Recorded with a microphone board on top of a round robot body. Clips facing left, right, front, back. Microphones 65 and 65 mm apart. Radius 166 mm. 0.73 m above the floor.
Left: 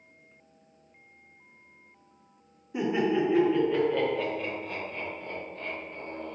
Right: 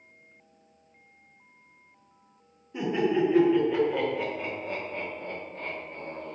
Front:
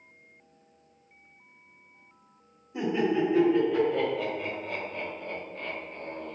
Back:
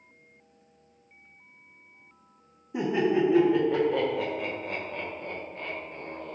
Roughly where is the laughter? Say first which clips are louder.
Even, back 2 dB; behind.